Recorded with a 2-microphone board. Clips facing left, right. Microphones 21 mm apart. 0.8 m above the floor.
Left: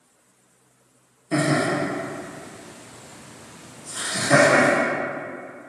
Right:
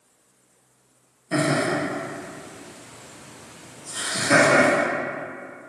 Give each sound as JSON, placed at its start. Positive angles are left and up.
{"t": 1.3, "sound": "laughter", "side_deg": 0, "distance_m": 1.1}